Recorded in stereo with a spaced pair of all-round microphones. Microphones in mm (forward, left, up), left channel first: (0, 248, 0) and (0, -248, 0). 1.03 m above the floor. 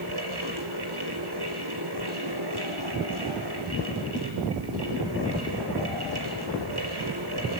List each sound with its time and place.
0.0 s a fan: 50° right (ahead or behind), 5 m